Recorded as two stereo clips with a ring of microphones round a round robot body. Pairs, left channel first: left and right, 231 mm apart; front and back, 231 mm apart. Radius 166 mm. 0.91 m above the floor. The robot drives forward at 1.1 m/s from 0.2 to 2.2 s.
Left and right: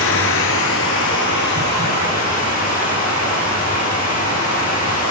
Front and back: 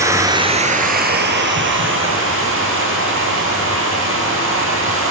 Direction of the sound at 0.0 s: 105° left.